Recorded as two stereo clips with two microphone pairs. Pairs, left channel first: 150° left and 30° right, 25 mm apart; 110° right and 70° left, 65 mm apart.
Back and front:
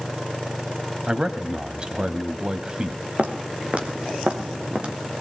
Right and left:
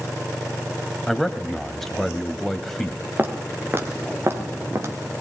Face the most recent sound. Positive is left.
turn(degrees=25)